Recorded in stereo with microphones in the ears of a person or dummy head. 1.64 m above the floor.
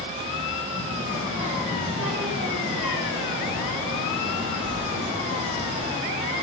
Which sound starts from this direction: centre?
A child speaking, at 0.7 s.